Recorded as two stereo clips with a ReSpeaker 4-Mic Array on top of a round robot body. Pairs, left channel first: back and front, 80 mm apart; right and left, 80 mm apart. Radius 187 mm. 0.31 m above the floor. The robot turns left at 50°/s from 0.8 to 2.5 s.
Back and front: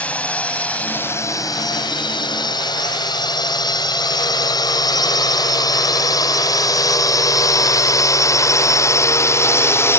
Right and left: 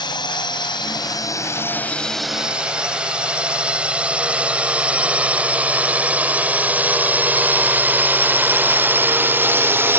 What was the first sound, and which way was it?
A drone, 105° right.